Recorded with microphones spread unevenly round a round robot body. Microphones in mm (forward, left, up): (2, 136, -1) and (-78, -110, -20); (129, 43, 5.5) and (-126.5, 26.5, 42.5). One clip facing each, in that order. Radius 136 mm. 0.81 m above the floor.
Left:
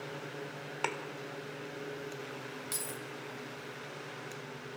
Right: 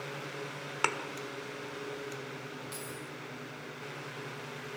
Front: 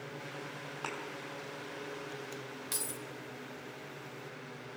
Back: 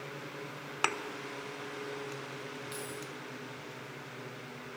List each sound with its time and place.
0.8 s a thud: straight behind, 1.2 m
2.7 s keys jangling: 20° left, 2.5 m